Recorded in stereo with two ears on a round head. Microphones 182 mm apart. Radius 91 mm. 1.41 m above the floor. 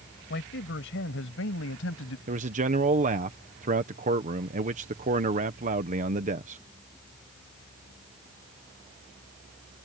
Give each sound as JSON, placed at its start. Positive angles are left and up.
{"t": 0.3, "sound": "a man speaking", "side_deg": 55}
{"t": 2.3, "sound": "a man speaking", "side_deg": -35}